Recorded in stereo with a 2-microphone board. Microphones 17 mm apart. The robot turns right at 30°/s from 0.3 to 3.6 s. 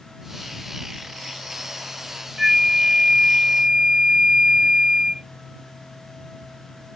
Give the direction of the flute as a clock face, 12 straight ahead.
5 o'clock.